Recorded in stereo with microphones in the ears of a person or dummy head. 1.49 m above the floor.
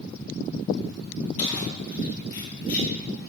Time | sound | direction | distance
1.4 | keys jangling | 45° left (ahead or behind) | 1.7 m